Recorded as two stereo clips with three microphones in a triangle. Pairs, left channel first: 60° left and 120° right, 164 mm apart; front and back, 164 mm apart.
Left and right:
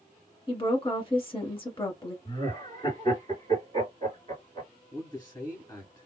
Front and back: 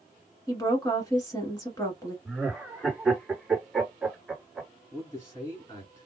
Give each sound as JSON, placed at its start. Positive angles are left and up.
{"t": 0.5, "sound": "a woman speaking", "azimuth_deg": 45, "distance_m": 1.4}
{"t": 2.2, "sound": "laughter", "azimuth_deg": 90, "distance_m": 1.9}
{"t": 4.9, "sound": "a man speaking", "azimuth_deg": 40, "distance_m": 1.7}